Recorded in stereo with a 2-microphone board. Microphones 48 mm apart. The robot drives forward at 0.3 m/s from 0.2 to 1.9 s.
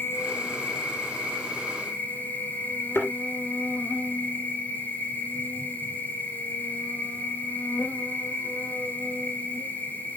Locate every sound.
0.0 s an insect: 55° left (ahead or behind), 0.8 m; by 10.2 s 35° left (ahead or behind), 1.2 m
3.0 s a thud: 60° left (ahead or behind), 2.5 m